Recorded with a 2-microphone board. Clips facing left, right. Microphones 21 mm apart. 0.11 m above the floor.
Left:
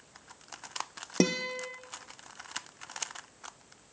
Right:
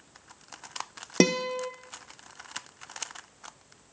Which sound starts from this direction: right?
A guitar, at 1.2 s.